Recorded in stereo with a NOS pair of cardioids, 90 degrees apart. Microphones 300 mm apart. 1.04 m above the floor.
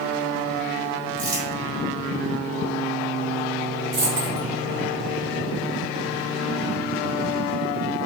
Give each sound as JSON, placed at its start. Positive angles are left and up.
{"t": 1.2, "sound": "crumpling", "azimuth_deg": -65, "distance_m": 1.7}
{"t": 3.9, "sound": "a dropped coin", "azimuth_deg": -70, "distance_m": 1.9}